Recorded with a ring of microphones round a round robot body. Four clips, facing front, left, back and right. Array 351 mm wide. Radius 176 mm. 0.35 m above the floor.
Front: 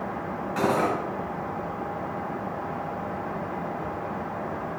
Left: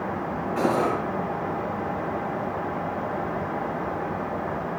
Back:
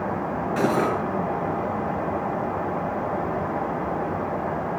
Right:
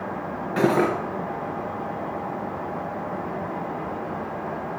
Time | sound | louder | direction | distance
0.6 | cutlery clinking | right 3 dB, back 1 dB | 95° right | 4 m